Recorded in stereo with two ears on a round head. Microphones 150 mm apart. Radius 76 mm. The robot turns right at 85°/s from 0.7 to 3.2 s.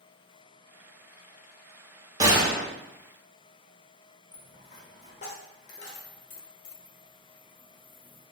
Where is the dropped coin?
45° left (ahead or behind), 1.2 m.